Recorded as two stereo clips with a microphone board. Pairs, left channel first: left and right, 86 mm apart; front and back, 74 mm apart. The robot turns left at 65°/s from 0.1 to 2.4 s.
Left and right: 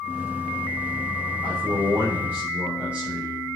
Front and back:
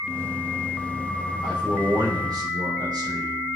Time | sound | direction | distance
1.4 | a man speaking | 100° right | 4 m